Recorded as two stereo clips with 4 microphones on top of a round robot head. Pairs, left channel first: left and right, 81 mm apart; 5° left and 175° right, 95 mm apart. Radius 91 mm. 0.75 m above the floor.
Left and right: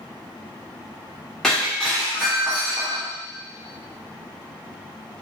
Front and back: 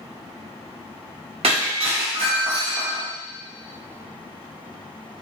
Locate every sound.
1.4 s breaking glass: 175° left, 1.5 m